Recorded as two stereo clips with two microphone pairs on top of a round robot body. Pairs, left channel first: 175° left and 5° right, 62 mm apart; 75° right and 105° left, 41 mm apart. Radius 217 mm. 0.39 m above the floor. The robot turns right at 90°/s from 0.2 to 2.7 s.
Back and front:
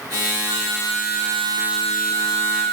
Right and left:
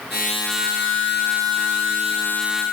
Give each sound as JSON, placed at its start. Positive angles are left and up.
{"t": 0.5, "sound": "a flute", "azimuth_deg": 180, "distance_m": 2.0}